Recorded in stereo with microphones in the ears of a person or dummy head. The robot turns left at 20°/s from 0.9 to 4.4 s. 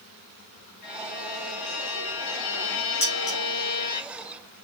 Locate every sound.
0.8 s a violin: 125° left, 3.5 m; by 4.0 s 65° left, 3.5 m
3.0 s dishes clattering: 30° left (ahead or behind), 3 m; by 3.4 s 35° left (ahead or behind), 3 m